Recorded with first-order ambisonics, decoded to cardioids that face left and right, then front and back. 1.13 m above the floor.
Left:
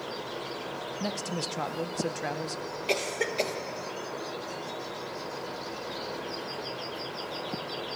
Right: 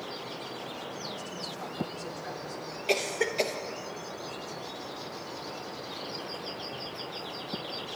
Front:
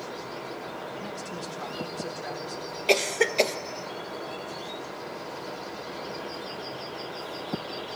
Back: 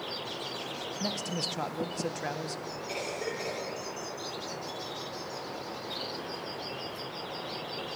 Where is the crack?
No crack in this recording.